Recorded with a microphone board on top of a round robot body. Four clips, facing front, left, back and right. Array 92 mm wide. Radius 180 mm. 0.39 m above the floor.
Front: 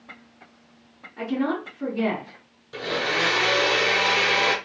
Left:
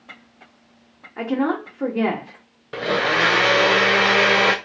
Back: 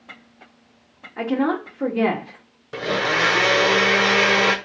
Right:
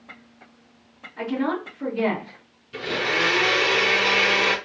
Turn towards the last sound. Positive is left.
turn(degrees=115)